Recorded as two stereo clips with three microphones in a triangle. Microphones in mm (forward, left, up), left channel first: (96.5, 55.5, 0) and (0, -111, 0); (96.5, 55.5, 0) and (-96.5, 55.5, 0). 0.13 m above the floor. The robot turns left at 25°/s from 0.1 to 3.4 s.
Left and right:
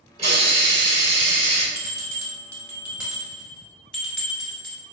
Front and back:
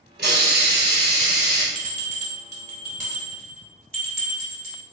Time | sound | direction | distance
0.2 | a hiss | 170° right | 1.3 m
1.8 | a bell | 170° right | 1.1 m